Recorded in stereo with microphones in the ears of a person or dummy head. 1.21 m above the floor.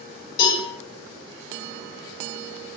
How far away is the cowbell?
About 1.6 m.